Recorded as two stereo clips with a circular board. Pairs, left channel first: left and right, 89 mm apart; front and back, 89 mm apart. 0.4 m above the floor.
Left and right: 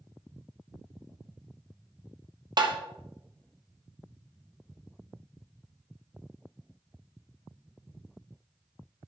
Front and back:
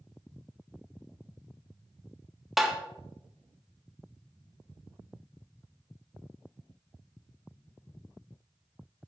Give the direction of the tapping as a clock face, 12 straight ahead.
3 o'clock.